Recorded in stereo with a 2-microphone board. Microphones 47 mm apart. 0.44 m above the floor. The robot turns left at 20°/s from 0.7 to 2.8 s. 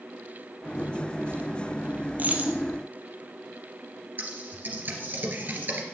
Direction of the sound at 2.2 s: 40° right (ahead or behind).